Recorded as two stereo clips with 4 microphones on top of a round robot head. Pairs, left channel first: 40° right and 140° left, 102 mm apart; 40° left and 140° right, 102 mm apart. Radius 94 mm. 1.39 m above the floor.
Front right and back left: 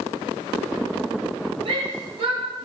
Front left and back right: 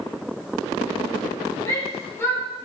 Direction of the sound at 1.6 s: 105° left.